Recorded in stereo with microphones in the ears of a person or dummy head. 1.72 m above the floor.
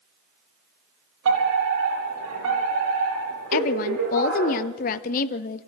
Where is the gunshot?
No gunshot in this recording.